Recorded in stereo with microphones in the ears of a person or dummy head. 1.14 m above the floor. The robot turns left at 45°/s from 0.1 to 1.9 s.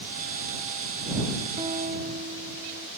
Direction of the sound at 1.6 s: 25° right (ahead or behind).